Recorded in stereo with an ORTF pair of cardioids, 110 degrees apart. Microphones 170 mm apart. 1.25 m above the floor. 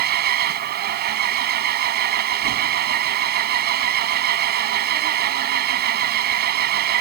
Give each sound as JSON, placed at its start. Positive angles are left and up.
{"t": 0.0, "sound": "an engine running", "azimuth_deg": -65}